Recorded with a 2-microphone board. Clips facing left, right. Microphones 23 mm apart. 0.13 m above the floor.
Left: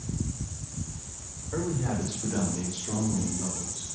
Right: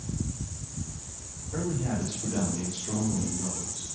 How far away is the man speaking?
About 7 m.